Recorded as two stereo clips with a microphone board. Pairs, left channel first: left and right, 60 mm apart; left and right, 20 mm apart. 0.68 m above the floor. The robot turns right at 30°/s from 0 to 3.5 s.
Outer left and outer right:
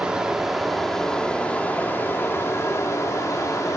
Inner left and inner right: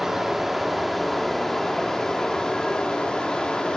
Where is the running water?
20° right, 1.2 m; by 3.8 s 85° left, 1.2 m.